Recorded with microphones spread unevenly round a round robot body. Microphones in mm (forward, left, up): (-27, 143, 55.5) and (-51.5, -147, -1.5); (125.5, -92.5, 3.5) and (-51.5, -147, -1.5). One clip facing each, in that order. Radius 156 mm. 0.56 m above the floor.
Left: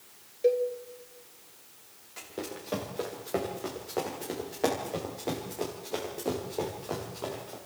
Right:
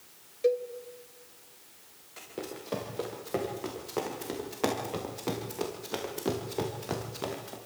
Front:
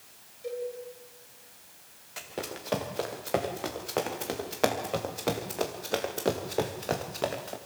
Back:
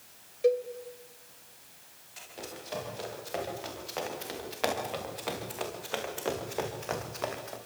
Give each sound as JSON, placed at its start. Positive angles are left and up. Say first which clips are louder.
{"t": 0.4, "sound": "a cowbell", "louder": "left 2 dB, back 9 dB", "azimuth_deg": -165, "distance_m": 2.5}
{"t": 2.2, "sound": "running footsteps", "louder": "left 1 dB, front 6 dB", "azimuth_deg": -5, "distance_m": 4.5}